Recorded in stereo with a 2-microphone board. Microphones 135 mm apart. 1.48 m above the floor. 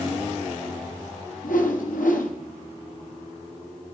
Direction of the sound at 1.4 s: 85° left.